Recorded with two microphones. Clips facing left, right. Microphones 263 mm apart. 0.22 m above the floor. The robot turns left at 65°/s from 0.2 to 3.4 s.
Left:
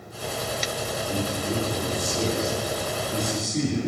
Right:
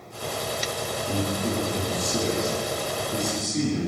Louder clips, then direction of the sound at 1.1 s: Right 2 dB; 30° right.